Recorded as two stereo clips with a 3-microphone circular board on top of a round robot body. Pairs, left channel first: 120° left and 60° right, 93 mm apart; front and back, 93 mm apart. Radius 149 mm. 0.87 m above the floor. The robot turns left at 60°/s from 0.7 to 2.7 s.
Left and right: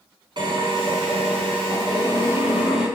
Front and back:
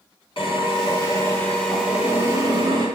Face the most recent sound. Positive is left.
turn(degrees=-145)